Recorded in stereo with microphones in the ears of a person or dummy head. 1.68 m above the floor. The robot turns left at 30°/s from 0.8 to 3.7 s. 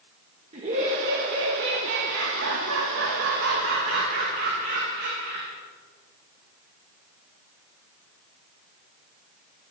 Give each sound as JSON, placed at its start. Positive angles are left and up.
{"t": 0.5, "sound": "laughter", "azimuth_deg": -35, "distance_m": 2.0}